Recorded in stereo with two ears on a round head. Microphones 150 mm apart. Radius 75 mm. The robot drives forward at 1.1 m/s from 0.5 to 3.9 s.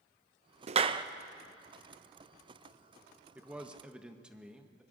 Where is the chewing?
No chewing in this recording.